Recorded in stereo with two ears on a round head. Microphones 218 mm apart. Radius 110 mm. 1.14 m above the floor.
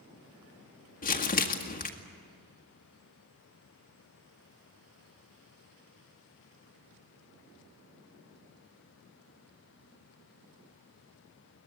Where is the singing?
I don't hear singing.